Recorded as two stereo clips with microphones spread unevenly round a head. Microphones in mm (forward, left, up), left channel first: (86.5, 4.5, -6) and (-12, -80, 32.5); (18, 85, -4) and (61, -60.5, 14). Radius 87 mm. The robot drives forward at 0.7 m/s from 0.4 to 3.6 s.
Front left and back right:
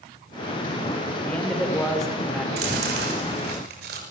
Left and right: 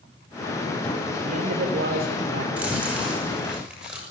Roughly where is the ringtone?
I don't hear a ringtone.